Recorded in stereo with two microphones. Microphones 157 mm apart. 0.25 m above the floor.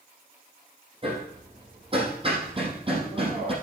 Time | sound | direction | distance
1.0 | hammering | 35° right (ahead or behind) | 4 m